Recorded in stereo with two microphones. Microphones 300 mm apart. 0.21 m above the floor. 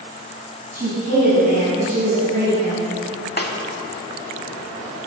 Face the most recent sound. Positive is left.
turn(degrees=35)  # may be behind; listen again after turning